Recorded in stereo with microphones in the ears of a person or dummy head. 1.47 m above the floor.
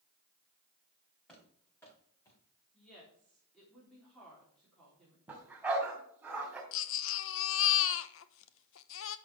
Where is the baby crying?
70° left (ahead or behind), 0.9 m.